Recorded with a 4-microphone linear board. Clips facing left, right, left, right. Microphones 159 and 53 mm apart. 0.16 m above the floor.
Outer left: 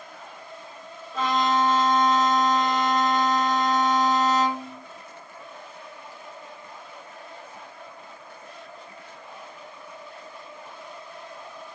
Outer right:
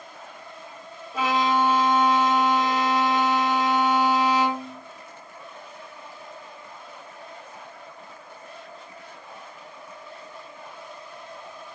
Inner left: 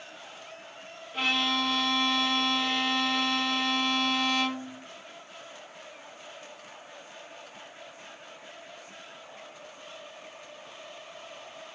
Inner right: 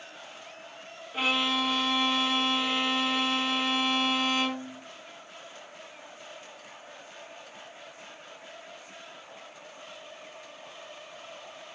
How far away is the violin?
About 1.2 m.